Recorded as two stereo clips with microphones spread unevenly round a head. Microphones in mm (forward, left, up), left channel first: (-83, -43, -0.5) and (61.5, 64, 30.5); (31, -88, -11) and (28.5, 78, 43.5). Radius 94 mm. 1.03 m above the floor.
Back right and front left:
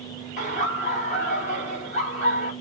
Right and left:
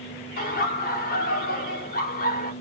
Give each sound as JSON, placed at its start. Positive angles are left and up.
{"t": 0.4, "sound": "laughter", "azimuth_deg": -95, "distance_m": 1.5}